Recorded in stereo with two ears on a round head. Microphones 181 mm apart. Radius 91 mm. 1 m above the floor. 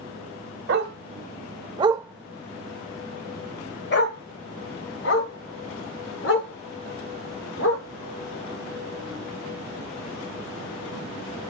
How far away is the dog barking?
About 1.2 m.